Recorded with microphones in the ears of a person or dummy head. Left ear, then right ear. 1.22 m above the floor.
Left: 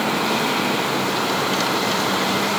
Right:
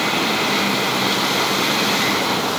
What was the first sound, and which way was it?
Only background noise.